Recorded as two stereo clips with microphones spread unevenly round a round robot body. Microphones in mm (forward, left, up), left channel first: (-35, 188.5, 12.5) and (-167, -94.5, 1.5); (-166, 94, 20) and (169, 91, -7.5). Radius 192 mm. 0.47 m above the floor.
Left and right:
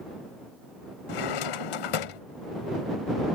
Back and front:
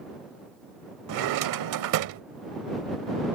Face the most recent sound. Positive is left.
turn(degrees=35)